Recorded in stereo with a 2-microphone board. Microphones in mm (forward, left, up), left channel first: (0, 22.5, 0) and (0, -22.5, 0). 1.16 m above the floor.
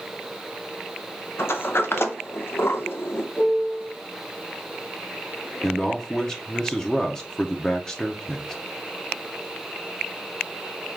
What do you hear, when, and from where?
1.4 s a sliding door: 60° left (ahead or behind), 0.5 m
3.4 s a piano: 75° left (ahead or behind), 1.8 m
5.6 s a man speaking: 15° left (ahead or behind), 0.6 m